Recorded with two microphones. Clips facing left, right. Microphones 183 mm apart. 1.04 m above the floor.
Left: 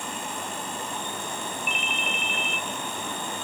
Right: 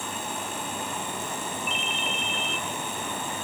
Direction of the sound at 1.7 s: 55° left (ahead or behind).